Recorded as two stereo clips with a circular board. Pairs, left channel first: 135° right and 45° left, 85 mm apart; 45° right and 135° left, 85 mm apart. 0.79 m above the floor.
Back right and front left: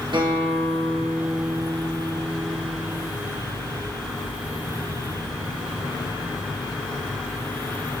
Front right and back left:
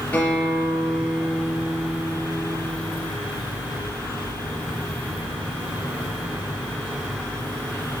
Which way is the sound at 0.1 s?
25° left.